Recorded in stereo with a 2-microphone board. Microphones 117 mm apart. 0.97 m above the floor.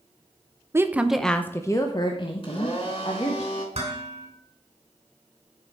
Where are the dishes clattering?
60° right (ahead or behind), 2.5 m.